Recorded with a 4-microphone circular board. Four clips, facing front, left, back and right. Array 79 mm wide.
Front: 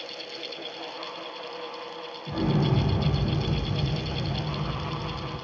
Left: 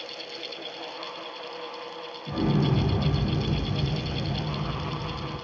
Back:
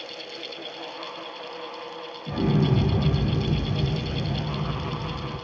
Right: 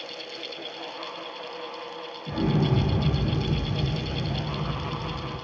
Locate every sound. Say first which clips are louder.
2.3 s an explosion: even, back 2 dB; 145° right, 1.1 m